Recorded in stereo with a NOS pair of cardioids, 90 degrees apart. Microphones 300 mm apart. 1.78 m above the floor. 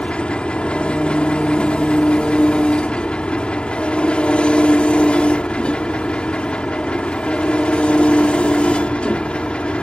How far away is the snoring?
I don't hear snoring.